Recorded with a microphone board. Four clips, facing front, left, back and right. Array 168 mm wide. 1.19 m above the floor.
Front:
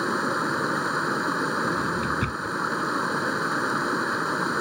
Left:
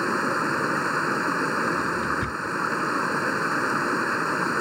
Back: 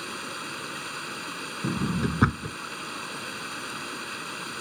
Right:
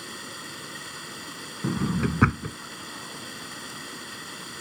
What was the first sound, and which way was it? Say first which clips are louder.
Running water: left 17 dB, front 12 dB; 50° left.